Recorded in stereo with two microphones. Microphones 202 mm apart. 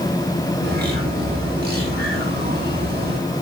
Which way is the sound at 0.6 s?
50° right (ahead or behind).